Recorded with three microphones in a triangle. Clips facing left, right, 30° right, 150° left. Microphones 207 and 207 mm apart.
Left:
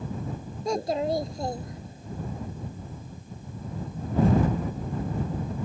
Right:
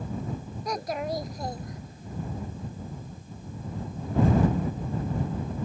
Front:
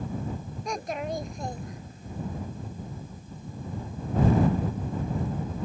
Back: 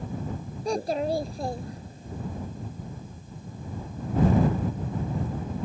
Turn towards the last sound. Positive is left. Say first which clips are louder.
# left 5 dB, back 6 dB
turn(degrees=130)